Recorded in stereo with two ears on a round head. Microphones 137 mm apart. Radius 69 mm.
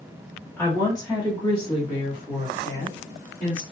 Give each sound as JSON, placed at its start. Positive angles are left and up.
{"t": 0.6, "sound": "a woman speaking", "side_deg": 15, "distance_m": 1.2}